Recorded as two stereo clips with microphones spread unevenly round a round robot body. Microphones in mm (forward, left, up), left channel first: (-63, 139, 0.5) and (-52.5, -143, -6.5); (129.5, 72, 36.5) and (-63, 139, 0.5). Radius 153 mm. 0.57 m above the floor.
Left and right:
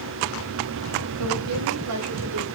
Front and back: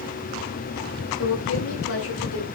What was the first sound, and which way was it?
A woman speaking, 50° right.